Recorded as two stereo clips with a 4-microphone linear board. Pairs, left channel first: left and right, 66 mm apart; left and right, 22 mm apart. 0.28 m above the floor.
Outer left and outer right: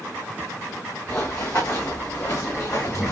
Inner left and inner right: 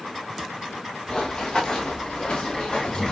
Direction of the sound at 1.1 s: 45° left (ahead or behind).